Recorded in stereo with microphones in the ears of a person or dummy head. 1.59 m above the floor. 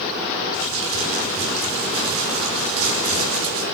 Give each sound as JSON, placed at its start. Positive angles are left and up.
{"t": 0.5, "sound": "crumpling", "side_deg": -75, "distance_m": 6.0}